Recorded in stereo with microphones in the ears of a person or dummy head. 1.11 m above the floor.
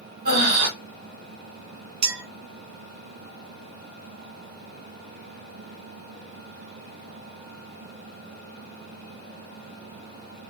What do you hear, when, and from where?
0.2 s breathing: 50° right (ahead or behind), 1.2 m
2.0 s a clink: 60° right (ahead or behind), 1.1 m